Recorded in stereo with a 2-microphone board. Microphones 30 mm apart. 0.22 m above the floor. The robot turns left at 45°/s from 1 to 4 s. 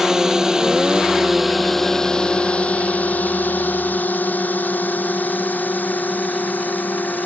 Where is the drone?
20° right (ahead or behind); by 7.2 s 80° left.